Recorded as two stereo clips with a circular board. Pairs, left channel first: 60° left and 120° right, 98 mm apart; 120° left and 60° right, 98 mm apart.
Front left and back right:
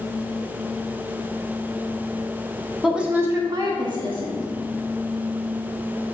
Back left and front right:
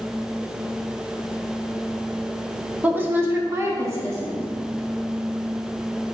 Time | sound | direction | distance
2.8 | a woman speaking | 25° right | 0.9 m